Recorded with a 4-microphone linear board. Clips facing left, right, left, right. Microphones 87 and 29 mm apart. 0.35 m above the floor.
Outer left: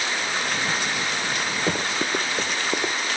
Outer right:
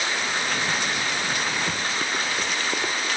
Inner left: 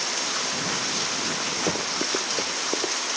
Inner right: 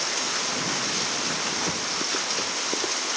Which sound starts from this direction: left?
Running footsteps, at 1.7 s.